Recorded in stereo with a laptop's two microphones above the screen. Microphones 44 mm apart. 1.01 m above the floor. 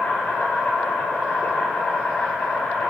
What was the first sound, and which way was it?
An insect, 45° left (ahead or behind).